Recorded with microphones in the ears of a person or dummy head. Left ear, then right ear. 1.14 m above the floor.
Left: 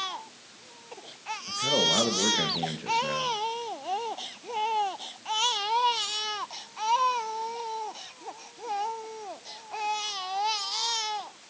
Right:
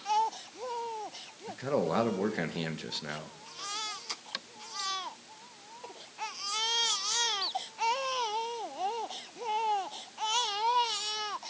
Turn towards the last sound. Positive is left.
turn(degrees=-25)  # may be behind; listen again after turning